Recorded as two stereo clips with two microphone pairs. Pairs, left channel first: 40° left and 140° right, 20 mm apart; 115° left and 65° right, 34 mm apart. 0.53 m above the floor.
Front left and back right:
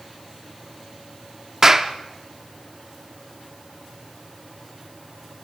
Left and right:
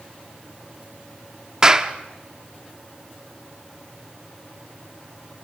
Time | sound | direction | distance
1.6 | a clap | 110° right | 0.9 m